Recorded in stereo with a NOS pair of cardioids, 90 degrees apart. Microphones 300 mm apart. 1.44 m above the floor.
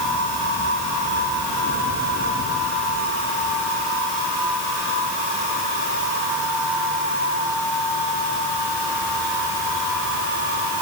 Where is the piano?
I don't hear a piano.